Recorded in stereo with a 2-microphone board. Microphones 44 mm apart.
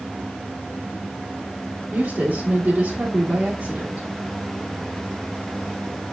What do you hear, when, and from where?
1.9 s a woman speaking: 30° right (ahead or behind), 2 m